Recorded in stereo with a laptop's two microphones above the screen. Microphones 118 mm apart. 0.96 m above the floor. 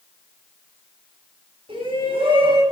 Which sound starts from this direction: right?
A shout, at 1.7 s.